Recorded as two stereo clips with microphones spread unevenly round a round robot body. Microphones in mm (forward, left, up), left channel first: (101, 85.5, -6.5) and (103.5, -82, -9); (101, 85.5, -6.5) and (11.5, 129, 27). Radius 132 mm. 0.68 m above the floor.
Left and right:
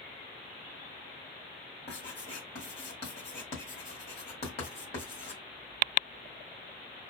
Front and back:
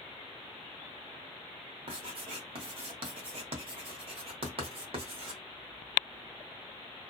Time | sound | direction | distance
1.9 | writing | 145° left | 0.8 m